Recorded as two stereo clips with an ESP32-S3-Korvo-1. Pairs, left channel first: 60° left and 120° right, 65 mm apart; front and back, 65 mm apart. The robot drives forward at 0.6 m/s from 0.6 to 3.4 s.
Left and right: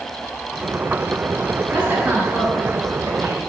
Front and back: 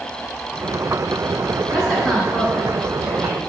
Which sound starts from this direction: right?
A woman speaking, at 1.7 s.